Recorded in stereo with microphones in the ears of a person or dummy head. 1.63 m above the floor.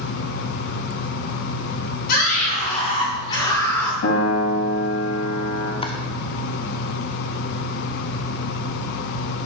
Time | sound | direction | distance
2.1 | a scream | 55° left (ahead or behind) | 3 m
4.0 | a piano | 70° left (ahead or behind) | 2.5 m
5.8 | chopping | 25° left (ahead or behind) | 0.7 m